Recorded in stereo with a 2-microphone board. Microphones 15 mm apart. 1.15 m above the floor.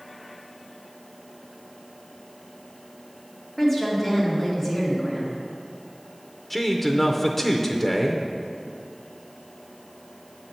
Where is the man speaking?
15° left (ahead or behind), 0.5 m.